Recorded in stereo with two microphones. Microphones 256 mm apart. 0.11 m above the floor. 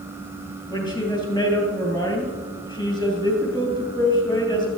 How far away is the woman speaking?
About 3 m.